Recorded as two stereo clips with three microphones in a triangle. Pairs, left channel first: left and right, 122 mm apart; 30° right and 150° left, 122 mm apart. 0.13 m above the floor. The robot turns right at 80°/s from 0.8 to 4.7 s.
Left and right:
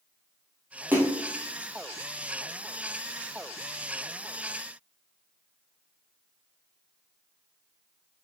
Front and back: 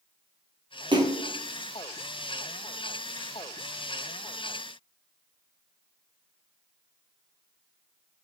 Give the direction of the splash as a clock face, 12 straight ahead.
5 o'clock.